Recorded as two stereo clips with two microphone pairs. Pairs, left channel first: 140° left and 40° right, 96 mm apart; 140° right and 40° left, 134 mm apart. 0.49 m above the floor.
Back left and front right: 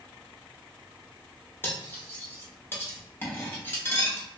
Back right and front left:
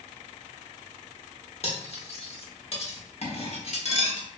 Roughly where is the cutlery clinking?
Behind right.